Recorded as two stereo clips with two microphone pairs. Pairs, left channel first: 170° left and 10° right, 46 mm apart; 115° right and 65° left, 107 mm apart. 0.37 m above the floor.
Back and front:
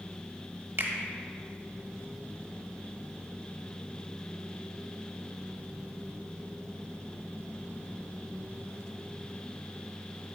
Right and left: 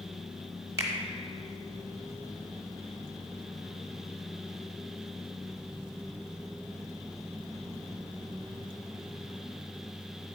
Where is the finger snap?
10° left, 1.1 m.